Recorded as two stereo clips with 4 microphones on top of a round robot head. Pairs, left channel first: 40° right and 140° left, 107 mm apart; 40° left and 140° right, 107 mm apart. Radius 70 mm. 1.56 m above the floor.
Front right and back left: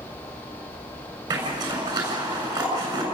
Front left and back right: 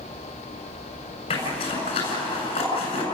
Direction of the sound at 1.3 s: 85° left.